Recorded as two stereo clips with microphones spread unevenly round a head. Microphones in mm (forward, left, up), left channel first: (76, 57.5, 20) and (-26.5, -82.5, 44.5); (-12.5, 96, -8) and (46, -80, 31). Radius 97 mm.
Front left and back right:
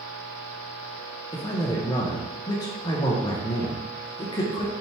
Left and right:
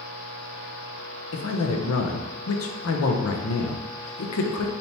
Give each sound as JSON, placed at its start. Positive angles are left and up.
{"t": 1.3, "sound": "a man speaking", "azimuth_deg": 125, "distance_m": 0.6}